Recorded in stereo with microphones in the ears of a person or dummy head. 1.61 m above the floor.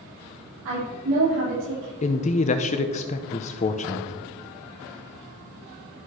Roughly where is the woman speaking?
Right.